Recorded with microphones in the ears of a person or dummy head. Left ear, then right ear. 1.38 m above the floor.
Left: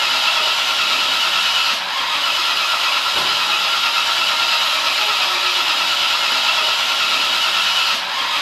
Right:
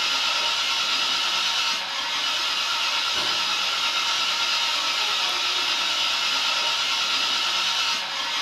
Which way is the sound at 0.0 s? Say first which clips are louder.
Left 7 dB; 25° left (ahead or behind).